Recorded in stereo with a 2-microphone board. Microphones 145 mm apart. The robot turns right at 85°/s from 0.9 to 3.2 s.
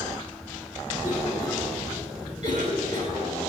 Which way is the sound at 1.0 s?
50° left (ahead or behind).